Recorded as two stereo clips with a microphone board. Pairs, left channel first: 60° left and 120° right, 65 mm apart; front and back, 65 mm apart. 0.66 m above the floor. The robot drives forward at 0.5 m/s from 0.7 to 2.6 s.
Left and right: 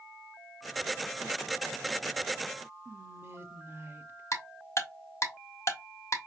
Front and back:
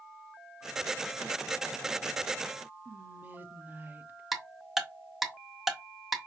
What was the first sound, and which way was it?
Whispering, 135° right.